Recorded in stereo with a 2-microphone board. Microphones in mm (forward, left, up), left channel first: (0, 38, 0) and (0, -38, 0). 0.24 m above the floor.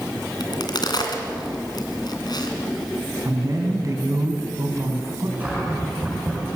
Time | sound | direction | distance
0.4 | a crack | 60° left (ahead or behind) | 2.5 m
3.2 | a woman speaking | 45° right (ahead or behind) | 2.5 m
5.4 | a cupboard door | 20° right (ahead or behind) | 6.5 m